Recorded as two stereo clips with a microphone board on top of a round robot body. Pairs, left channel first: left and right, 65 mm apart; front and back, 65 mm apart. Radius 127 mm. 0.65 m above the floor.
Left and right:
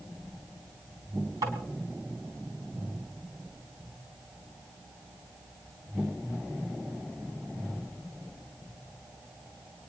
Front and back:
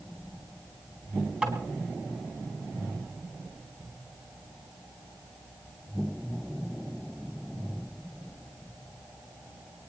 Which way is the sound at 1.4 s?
110° right.